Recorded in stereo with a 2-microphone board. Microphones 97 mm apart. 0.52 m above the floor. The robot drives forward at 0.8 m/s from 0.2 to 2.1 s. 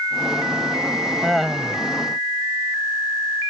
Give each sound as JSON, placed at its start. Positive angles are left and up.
{"t": 1.2, "sound": "laughter", "side_deg": -5}